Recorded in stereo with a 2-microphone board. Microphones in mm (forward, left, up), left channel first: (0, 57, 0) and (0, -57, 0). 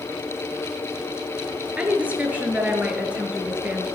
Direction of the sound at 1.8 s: 15° right (ahead or behind).